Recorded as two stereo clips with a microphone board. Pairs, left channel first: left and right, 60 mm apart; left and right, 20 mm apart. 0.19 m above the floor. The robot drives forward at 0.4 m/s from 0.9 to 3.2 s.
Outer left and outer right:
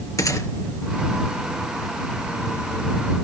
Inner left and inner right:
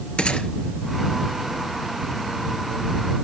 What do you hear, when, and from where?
0.2 s a gunshot: 70° left (ahead or behind), 2 m